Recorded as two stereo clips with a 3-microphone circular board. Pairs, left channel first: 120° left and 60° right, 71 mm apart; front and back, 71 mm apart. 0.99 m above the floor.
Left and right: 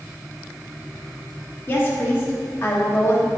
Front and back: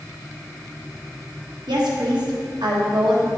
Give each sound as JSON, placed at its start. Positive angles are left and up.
{"t": 1.7, "sound": "a woman speaking", "azimuth_deg": 175, "distance_m": 1.5}